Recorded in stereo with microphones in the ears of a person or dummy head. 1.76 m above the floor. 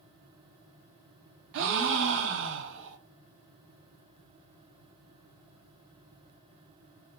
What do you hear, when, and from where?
1.5 s a gasp: 70° right (ahead or behind), 0.5 m